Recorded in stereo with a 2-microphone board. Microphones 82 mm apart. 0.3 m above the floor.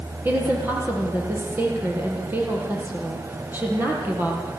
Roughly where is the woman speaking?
Right.